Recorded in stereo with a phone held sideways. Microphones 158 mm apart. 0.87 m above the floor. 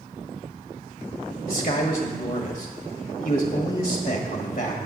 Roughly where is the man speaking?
Left.